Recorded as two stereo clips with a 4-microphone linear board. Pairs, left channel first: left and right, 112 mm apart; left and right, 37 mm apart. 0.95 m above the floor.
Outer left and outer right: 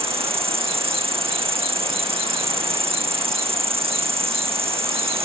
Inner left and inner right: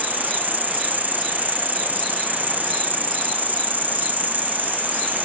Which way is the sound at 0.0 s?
60° right (ahead or behind).